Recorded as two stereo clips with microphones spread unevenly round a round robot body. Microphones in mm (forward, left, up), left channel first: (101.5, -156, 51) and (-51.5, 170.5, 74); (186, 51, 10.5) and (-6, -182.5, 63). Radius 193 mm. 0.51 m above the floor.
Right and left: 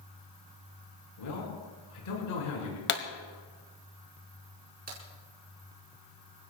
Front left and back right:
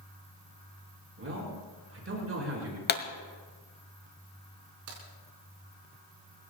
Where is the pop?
5° right, 1.7 m.